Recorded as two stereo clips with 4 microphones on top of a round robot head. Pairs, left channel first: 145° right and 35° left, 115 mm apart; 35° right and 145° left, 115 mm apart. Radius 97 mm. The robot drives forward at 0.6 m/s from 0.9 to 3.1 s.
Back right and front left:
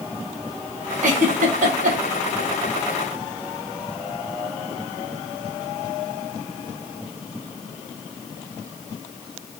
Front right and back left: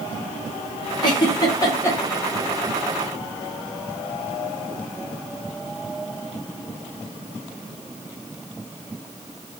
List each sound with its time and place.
1.0 s a giggle: 15° left, 1.1 m; by 2.0 s 35° left, 0.6 m